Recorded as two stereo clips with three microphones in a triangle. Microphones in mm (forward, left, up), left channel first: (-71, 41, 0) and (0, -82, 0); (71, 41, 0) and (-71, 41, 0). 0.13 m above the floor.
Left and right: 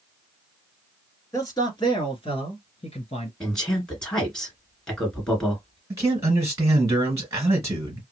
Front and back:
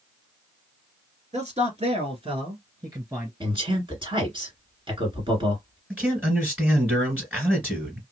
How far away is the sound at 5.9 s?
About 1.9 m.